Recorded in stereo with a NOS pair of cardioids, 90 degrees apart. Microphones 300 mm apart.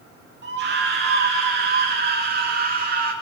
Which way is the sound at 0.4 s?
35° right.